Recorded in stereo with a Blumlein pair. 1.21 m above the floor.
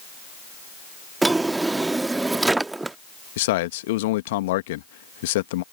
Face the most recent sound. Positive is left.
turn(degrees=55)